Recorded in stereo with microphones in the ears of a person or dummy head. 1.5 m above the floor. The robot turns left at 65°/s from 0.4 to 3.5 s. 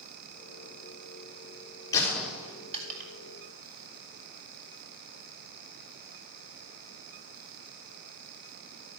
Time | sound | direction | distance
1.9 | a gunshot | 25° left (ahead or behind) | 5 m